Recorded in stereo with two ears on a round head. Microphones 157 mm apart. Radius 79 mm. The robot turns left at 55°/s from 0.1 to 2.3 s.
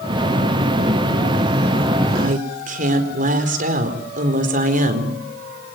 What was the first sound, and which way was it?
A woman speaking, 60° right (ahead or behind).